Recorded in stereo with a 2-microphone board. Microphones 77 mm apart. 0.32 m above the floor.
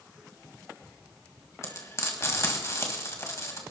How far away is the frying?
About 1.9 m.